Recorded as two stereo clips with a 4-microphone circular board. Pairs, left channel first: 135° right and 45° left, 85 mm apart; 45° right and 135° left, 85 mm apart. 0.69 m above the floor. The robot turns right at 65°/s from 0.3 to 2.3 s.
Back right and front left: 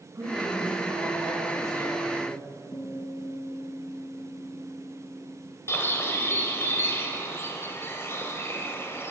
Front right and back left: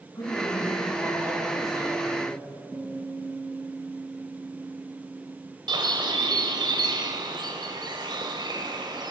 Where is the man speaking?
Straight ahead, 5.5 m; by 2.4 s 130° left, 5.5 m.